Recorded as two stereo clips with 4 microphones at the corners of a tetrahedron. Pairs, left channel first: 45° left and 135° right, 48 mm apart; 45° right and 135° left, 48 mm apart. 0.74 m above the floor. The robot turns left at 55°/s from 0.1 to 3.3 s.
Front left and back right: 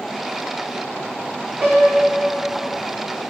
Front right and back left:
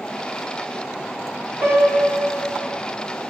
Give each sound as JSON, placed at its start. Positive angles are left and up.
{"t": 1.6, "sound": "a piano", "azimuth_deg": 155, "distance_m": 1.8}